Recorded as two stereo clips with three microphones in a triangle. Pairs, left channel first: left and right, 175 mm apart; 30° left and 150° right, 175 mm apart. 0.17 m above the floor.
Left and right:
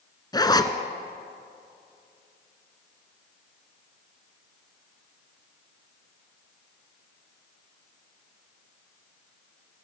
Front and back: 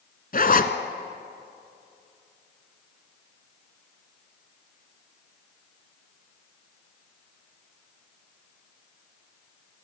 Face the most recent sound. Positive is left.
turn(degrees=30)